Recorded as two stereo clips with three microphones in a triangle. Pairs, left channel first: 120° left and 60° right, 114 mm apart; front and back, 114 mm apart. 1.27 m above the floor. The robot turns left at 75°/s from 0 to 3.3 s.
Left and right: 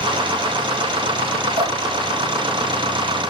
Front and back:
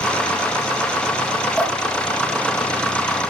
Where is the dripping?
75° right, 2 m; by 1.8 s 90° right, 2 m.